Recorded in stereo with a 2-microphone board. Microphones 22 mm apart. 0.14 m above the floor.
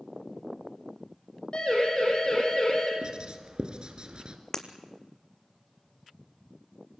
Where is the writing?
45° right (ahead or behind), 2.5 m.